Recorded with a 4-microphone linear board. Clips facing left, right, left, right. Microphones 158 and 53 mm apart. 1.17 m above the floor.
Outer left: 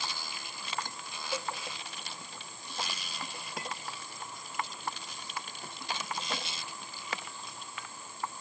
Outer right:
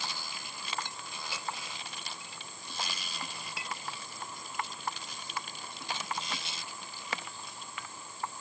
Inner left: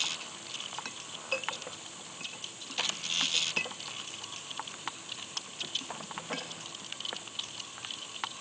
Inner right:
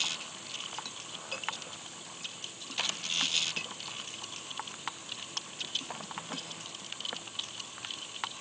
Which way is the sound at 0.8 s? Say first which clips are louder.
Outer left 4 dB, inner left 5 dB; 45° left (ahead or behind).